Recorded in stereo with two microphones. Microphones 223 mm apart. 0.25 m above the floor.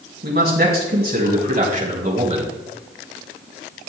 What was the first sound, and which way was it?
A man speaking, 50° right (ahead or behind).